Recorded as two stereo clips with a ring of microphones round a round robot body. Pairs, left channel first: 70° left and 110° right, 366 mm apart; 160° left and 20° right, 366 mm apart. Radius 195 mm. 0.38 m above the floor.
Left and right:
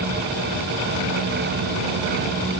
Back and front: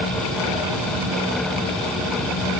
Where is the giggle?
I don't hear a giggle.